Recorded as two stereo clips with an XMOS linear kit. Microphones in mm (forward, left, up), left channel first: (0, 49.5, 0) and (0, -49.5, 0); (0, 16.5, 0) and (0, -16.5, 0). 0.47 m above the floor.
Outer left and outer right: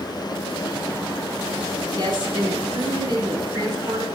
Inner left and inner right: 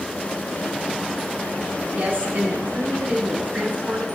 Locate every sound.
2.0 s a woman speaking: 45° right (ahead or behind), 1.1 m